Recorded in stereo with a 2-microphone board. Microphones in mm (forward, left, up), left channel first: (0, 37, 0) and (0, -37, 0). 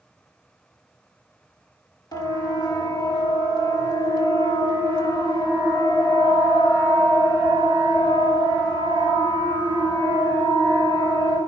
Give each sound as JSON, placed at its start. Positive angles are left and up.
{"t": 2.1, "sound": "a siren", "side_deg": 60, "distance_m": 3.5}